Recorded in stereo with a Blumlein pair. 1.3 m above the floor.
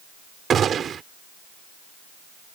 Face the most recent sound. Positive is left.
turn(degrees=-25)